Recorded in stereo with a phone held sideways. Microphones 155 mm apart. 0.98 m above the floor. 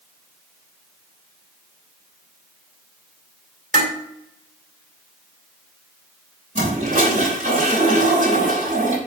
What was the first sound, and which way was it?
Dishes clattering, 90° right.